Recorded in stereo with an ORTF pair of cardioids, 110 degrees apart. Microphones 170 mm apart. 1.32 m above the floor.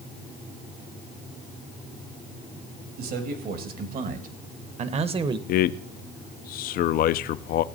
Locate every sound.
3.0 s a man speaking: 65° right, 2 m; by 5.4 s 25° right, 0.9 m
5.5 s a man speaking: 60° left, 0.5 m